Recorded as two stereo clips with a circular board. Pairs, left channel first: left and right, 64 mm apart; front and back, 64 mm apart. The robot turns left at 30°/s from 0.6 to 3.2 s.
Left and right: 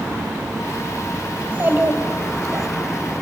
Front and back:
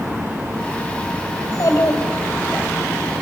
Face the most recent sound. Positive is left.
turn(degrees=-75)